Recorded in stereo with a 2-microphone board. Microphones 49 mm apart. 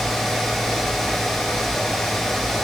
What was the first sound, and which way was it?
Only background noise.